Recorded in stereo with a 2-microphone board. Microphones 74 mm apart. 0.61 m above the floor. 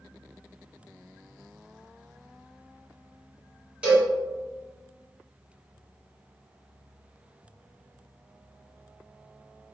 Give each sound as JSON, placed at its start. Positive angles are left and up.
{"t": 3.8, "sound": "a cowbell", "side_deg": -15, "distance_m": 1.6}